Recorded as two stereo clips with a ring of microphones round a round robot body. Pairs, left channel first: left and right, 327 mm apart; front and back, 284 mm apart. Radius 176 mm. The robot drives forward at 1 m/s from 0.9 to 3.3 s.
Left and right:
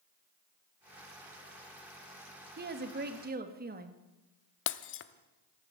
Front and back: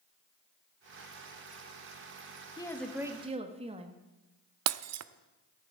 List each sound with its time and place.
2.6 s a woman speaking: 65° right, 1.3 m; by 4.0 s 125° right, 1.3 m
4.7 s breaking glass: 145° left, 0.7 m